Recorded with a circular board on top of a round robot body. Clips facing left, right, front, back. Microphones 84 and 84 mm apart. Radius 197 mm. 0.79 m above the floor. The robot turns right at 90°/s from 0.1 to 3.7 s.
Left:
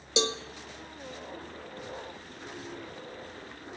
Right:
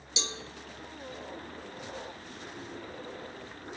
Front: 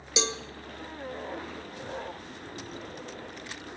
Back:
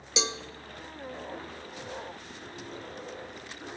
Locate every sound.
0.2 s a cowbell: 90° left, 0.7 m; by 0.4 s 110° left, 0.7 m